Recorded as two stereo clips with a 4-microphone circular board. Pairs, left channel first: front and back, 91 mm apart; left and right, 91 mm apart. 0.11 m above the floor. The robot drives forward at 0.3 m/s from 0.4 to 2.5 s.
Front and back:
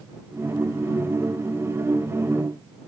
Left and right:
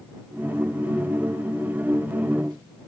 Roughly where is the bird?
I don't hear a bird.